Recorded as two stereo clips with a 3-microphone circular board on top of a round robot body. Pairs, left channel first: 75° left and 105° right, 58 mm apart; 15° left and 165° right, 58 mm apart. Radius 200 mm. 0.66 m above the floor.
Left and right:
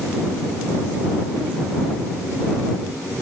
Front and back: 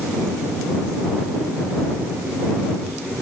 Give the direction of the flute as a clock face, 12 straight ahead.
I don't hear a flute.